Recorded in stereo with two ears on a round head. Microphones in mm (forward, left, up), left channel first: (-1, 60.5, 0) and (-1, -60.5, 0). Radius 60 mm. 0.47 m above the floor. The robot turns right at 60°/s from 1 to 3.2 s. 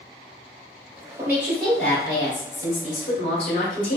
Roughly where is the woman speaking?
Ahead right.